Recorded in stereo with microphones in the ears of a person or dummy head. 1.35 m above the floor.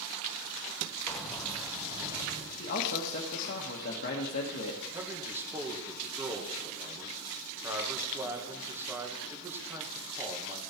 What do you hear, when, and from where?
1.1 s keys jangling: 10° left (ahead or behind), 1.9 m; by 2.5 s 25° right (ahead or behind), 1.9 m
2.6 s a man speaking: 50° left (ahead or behind), 1.2 m
4.9 s a man speaking: 10° right (ahead or behind), 1.5 m